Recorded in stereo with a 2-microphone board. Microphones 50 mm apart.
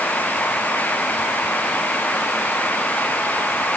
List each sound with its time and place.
Only background noise.